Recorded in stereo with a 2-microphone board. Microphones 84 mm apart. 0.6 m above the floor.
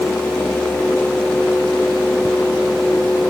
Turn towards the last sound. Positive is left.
No sound to turn to.